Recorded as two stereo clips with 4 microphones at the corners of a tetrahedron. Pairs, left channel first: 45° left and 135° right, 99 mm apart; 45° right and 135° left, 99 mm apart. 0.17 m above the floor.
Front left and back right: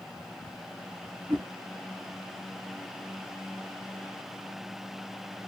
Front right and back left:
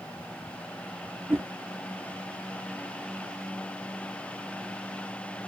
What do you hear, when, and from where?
1.3 s a whoosh: 160° right, 0.7 m